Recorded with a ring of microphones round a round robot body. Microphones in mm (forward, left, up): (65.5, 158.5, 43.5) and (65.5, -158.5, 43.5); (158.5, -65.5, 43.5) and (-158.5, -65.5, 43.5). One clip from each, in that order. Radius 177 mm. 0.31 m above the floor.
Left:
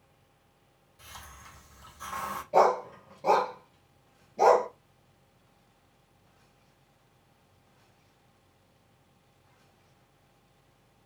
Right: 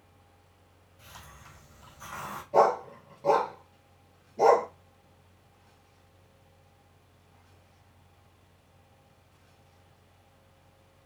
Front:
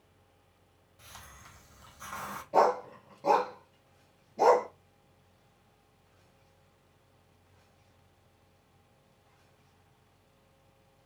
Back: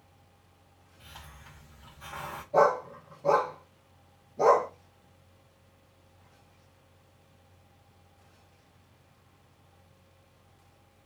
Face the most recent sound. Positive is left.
turn(degrees=20)